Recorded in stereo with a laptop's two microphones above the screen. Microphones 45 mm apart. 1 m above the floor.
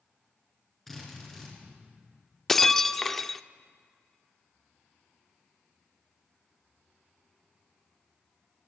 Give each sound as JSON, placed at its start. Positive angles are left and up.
{"t": 0.9, "sound": "a drill", "side_deg": 5, "distance_m": 6.5}
{"t": 2.5, "sound": "breaking glass", "side_deg": 10, "distance_m": 0.6}